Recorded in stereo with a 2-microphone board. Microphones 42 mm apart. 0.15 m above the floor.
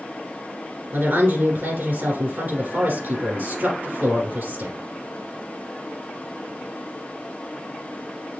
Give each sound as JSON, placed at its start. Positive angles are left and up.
{"t": 0.9, "sound": "a woman speaking", "side_deg": -55, "distance_m": 2.5}